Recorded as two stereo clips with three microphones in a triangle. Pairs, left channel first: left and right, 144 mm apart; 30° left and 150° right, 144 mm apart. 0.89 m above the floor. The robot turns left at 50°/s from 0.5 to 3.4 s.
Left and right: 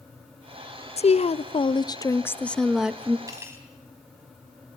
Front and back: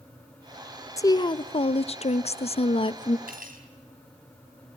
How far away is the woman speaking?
About 0.5 m.